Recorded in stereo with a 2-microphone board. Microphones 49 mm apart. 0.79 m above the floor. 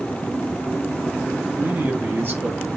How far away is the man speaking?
About 1.1 m.